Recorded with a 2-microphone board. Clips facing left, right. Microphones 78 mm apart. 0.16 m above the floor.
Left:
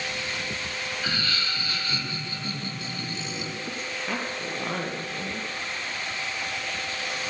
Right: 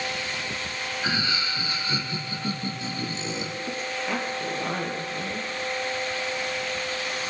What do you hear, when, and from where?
1.0 s laughter: 15° right (ahead or behind), 5 m; by 3.5 s 25° right (ahead or behind), 7 m
3.7 s a woman speaking: centre (ahead or behind), 5 m